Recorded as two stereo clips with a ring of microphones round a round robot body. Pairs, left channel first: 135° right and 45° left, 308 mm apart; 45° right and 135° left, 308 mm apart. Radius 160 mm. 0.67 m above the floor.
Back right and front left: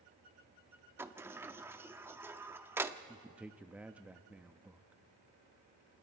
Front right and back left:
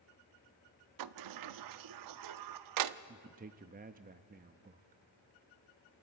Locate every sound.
1.0 s a sliding door: 125° left, 0.6 m
3.1 s a man speaking: 125° left, 0.6 m